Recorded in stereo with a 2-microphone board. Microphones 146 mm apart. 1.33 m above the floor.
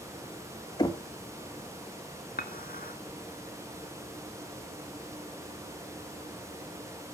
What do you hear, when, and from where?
0.8 s knocking: 25° left (ahead or behind), 0.9 m
2.4 s dishes clattering: 70° left (ahead or behind), 1.5 m